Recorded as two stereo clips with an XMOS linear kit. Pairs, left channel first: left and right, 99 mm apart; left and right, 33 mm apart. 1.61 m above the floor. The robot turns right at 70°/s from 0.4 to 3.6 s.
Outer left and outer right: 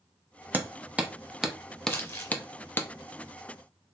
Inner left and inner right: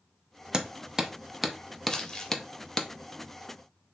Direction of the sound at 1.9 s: 20° left (ahead or behind).